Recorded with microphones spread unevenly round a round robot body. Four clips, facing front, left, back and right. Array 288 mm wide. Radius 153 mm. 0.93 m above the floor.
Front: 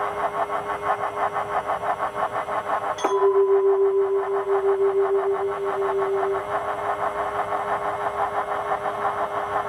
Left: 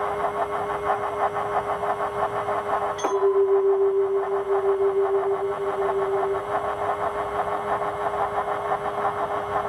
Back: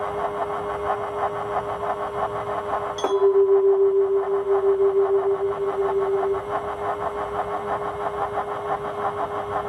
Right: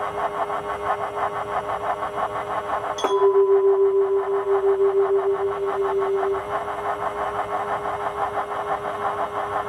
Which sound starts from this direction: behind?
A clink, at 3.0 s.